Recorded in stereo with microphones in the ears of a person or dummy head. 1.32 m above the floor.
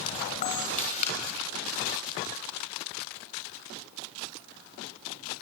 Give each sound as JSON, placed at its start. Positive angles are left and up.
{"t": 0.4, "sound": "a camera shutter", "side_deg": 45, "distance_m": 4.5}